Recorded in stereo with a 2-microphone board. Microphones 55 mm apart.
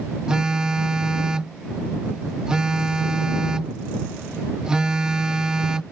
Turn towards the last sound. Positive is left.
turn(degrees=-15)  # may be behind; listen again after turning